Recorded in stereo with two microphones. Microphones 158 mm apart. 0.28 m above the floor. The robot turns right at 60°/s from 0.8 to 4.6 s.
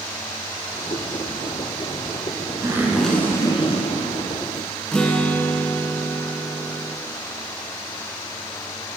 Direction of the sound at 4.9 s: 5° left (ahead or behind).